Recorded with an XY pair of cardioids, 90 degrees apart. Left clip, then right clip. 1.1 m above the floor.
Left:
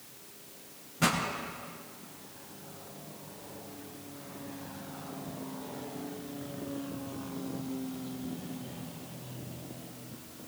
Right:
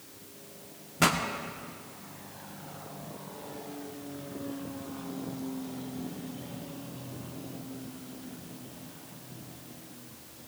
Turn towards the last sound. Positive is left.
turn(degrees=-65)